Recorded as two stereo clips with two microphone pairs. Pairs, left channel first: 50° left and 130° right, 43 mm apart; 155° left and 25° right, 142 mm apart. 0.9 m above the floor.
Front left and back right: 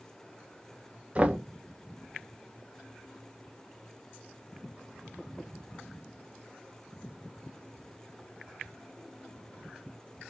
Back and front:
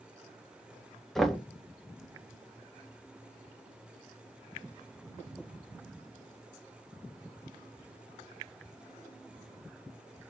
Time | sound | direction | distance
1.1 | knocking | 120° right | 0.5 m